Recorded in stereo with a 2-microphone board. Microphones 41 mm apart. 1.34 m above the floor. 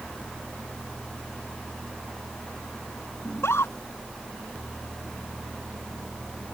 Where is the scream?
80° left.